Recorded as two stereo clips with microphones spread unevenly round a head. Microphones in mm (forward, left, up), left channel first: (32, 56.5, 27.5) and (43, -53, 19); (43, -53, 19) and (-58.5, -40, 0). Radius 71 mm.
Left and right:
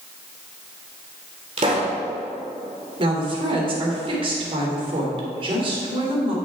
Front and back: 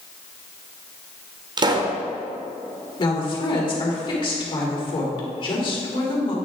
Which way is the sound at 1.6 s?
140° right.